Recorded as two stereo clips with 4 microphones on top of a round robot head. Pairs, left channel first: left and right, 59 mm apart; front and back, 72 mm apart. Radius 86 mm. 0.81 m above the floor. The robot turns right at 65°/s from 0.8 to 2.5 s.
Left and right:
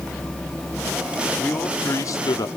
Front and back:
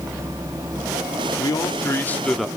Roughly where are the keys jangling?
I don't hear keys jangling.